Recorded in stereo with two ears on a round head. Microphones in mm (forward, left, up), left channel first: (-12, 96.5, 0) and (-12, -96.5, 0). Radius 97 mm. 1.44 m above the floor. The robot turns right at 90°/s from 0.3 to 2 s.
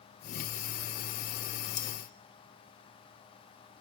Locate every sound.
1.8 s cutlery clinking: 35° left (ahead or behind), 1.6 m; by 1.9 s 45° left (ahead or behind), 1.6 m